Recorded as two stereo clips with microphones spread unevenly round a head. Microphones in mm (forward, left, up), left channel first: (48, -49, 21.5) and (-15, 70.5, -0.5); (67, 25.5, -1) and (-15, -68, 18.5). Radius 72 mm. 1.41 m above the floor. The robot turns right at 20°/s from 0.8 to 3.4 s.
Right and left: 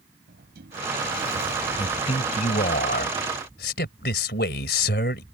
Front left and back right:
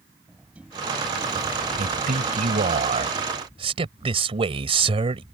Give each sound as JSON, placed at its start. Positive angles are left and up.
{"t": 0.3, "sound": "a sliding door", "azimuth_deg": 145}
{"t": 1.8, "sound": "a man speaking", "azimuth_deg": -120}